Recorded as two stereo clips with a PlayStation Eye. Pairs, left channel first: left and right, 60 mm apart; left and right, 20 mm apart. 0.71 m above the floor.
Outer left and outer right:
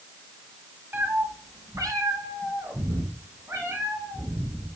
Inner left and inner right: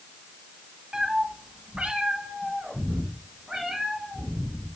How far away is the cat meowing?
About 1.7 m.